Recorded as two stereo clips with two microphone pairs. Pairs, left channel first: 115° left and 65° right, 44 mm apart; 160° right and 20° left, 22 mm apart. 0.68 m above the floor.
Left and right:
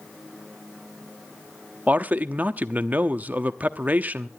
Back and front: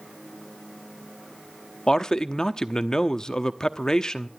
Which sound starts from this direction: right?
A man speaking, at 1.9 s.